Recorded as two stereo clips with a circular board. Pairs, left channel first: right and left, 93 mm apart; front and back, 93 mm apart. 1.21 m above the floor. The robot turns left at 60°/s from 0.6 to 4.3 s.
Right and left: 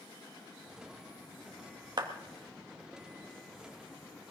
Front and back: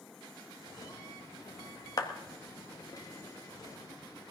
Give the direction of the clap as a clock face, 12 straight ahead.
10 o'clock.